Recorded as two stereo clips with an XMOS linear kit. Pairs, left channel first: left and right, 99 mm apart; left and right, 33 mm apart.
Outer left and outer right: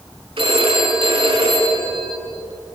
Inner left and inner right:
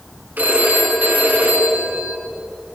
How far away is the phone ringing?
About 5.5 m.